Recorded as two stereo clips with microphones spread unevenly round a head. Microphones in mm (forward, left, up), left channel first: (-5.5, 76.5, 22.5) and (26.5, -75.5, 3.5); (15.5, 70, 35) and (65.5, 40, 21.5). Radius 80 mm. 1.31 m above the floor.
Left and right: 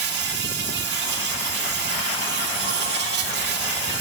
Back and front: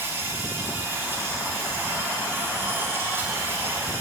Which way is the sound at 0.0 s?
105° right.